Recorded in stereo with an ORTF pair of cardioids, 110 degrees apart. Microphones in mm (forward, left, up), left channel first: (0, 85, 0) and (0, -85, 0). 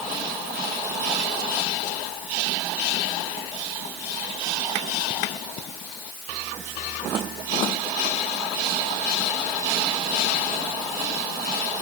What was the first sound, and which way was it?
Only background noise.